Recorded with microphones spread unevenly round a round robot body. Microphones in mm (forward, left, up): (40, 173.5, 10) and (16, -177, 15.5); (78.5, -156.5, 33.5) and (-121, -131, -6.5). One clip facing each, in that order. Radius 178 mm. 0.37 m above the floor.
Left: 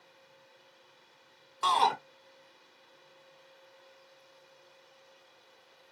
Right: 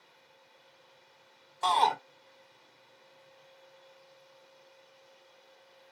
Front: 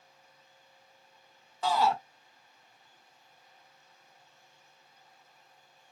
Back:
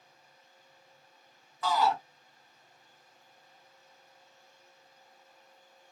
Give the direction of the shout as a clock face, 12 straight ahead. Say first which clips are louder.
Right 1 dB, front 1 dB; 10 o'clock.